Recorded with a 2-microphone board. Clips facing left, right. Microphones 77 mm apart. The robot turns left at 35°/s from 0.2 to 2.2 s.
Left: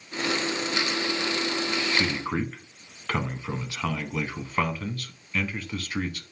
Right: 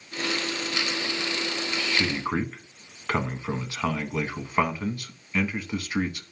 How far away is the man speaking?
About 1.2 m.